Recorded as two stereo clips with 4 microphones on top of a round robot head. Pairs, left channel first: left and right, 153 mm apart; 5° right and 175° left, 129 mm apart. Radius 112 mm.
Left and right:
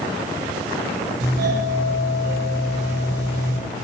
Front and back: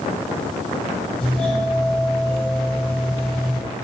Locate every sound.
1.2 s a doorbell: 90° right, 5 m